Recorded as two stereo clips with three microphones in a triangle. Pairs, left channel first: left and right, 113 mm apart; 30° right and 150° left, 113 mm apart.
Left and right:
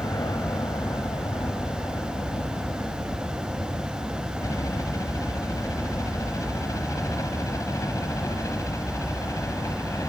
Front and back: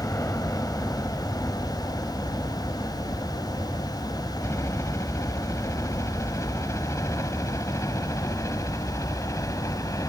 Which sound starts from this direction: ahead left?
A helicopter, at 0.0 s.